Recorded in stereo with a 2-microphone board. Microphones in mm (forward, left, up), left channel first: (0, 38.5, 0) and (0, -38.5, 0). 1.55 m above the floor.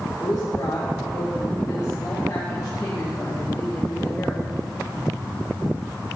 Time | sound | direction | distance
0.2 | a woman speaking | 45° left (ahead or behind) | 2.5 m